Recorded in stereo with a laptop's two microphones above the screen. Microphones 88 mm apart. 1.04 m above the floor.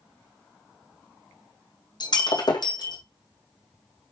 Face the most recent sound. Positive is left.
turn(degrees=55)  # may be behind; listen again after turning